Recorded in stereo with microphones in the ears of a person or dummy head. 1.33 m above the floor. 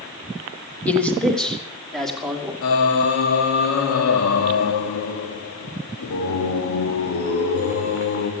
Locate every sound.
0.9 s a man speaking: 5° left (ahead or behind), 1.5 m; by 2.5 s centre (ahead or behind), 3.5 m
2.6 s singing: 75° left (ahead or behind), 1.8 m